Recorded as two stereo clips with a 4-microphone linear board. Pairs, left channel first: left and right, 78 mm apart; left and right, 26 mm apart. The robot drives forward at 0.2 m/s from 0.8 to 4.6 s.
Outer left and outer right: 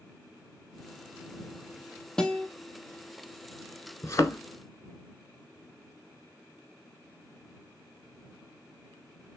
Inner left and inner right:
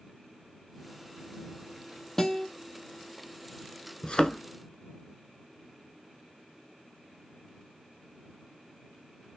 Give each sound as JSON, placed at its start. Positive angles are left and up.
{"t": 2.2, "sound": "a guitar", "side_deg": 10, "distance_m": 0.6}
{"t": 4.0, "sound": "a thud", "side_deg": 40, "distance_m": 0.5}